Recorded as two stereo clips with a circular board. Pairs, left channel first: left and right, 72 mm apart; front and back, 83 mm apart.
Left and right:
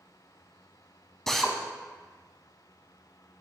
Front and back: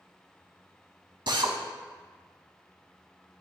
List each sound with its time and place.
1.3 s a drill: 175° left, 0.8 m